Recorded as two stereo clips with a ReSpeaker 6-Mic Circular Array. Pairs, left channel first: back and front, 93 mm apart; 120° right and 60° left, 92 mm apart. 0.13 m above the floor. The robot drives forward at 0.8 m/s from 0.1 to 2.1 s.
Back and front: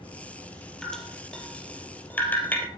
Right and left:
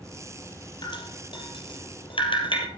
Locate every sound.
0.8 s dripping: 95° right, 4 m; by 2.7 s 110° right, 4 m